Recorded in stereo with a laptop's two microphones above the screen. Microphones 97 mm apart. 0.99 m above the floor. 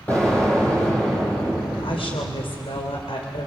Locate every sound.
0.1 s an explosion: 15° left (ahead or behind), 9.5 m
1.8 s a woman speaking: 75° left (ahead or behind), 3 m